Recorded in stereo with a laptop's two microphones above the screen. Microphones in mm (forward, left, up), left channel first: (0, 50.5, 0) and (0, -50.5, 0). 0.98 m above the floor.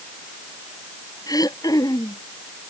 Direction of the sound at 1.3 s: 35° left (ahead or behind).